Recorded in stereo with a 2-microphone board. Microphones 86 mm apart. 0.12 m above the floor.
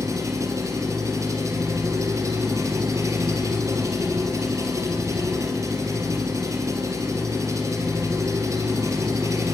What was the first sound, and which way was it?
An engine running, 35° right (ahead or behind).